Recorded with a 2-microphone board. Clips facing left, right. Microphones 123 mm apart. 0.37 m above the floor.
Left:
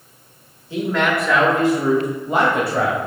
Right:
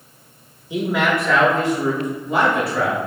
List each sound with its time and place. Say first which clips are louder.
0.7 s a man speaking: even; 15° right (ahead or behind), 0.9 m; by 3.0 s 50° left (ahead or behind), 1.4 m